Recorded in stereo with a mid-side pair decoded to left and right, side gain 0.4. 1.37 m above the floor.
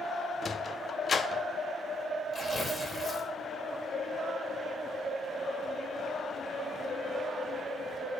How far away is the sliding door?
About 0.6 m.